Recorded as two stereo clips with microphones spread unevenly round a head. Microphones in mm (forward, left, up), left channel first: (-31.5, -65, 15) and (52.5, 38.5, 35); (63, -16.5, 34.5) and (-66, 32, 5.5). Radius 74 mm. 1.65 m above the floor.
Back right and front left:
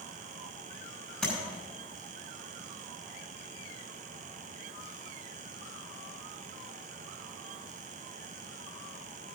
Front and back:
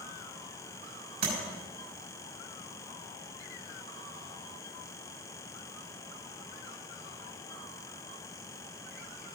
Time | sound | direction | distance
1.2 | tapping | 145° left | 6 m